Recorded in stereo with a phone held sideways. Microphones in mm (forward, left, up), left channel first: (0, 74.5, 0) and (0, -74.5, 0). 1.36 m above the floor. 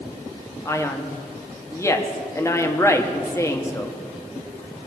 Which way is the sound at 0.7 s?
20° left (ahead or behind).